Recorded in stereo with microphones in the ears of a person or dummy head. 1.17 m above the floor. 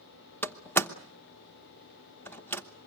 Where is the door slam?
10° left (ahead or behind), 0.9 m.